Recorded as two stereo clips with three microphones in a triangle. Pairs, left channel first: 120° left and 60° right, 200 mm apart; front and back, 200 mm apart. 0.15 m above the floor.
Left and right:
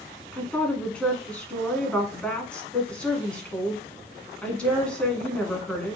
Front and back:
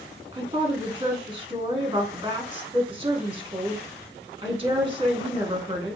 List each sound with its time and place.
0.3 s a woman speaking: 160° right, 1.2 m